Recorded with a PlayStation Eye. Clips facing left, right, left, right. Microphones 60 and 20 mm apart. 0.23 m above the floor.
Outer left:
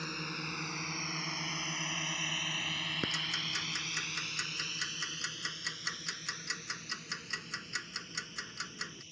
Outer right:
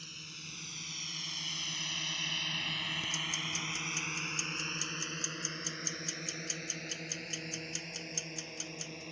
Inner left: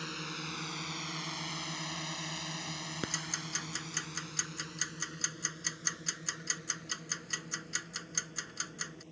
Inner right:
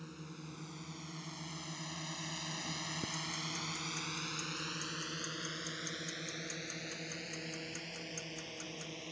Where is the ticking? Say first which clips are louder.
Outer left 1 dB, inner left 2 dB; 60° left (ahead or behind).